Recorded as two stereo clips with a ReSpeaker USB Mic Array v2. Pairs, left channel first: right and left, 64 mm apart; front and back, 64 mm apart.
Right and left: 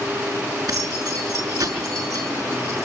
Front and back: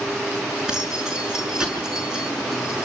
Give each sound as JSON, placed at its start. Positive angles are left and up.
{"t": 0.7, "sound": "keys jangling", "azimuth_deg": 105, "distance_m": 6.0}